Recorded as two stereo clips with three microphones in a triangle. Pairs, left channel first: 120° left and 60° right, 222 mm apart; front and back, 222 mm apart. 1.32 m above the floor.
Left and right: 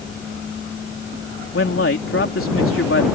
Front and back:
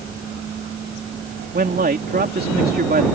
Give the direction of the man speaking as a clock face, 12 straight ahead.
8 o'clock.